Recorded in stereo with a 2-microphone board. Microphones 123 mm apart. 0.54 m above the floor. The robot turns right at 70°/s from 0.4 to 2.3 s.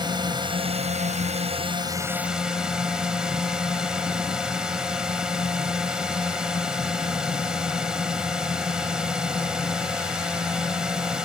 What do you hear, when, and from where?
0.0 s a drone: 140° right; by 11.3 s 5° right